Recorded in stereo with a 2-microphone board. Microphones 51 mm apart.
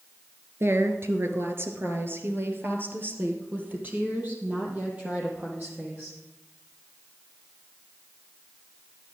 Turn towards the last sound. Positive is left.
turn(degrees=-30)  # may be behind; listen again after turning